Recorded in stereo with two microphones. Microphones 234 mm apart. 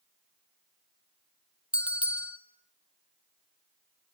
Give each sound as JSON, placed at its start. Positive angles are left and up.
{"t": 1.7, "sound": "a bell", "side_deg": -5, "distance_m": 1.1}